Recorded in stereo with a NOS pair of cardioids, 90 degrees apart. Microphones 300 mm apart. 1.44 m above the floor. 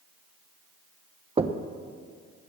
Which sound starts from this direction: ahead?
Knocking, at 1.4 s.